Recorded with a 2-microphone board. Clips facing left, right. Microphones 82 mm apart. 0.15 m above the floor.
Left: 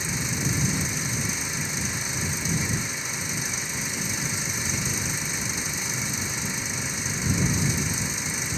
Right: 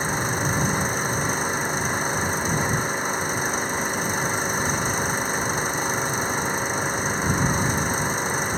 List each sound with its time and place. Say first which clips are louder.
0.0 s an engine running: right 6 dB; 50° right (ahead or behind)